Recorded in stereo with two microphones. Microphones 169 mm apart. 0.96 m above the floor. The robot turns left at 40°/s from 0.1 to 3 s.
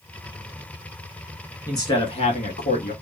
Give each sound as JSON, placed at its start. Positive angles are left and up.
{"t": 1.7, "sound": "a man speaking", "azimuth_deg": 160, "distance_m": 1.3}